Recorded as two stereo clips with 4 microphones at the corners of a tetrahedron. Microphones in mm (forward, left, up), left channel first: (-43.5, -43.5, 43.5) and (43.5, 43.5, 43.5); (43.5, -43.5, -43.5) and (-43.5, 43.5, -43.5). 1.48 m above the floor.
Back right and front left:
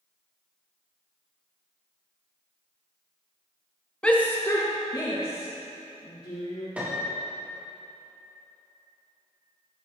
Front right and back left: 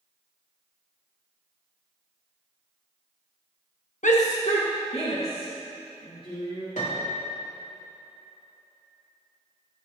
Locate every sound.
4.0 s a shout: 55° right, 1.1 m; by 6.7 s 90° right, 4 m
6.8 s a piano: 35° right, 3 m